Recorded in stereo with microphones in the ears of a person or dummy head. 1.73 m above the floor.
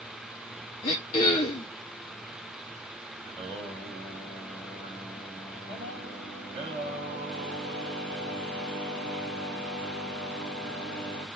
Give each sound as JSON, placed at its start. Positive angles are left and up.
{"t": 0.8, "sound": "throat clearing", "side_deg": 25, "distance_m": 1.1}
{"t": 3.2, "sound": "singing", "side_deg": -30, "distance_m": 4.0}